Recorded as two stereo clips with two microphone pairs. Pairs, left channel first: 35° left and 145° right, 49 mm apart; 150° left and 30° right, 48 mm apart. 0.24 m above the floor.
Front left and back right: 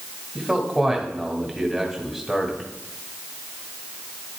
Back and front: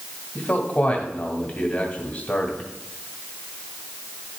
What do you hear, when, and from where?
0.3 s a man speaking: 130° left, 1.5 m